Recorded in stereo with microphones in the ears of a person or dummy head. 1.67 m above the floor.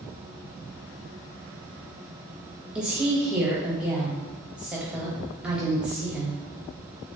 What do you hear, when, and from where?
2.8 s a woman speaking: 5° right (ahead or behind), 0.7 m